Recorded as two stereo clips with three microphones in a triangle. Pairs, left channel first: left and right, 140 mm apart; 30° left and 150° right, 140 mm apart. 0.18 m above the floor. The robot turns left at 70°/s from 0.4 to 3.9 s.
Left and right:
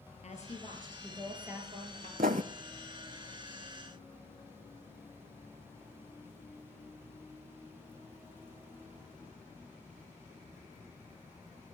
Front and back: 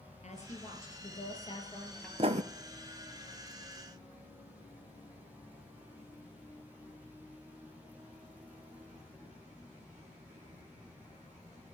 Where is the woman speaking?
60° left, 3 m; by 2.1 s 60° right, 3 m.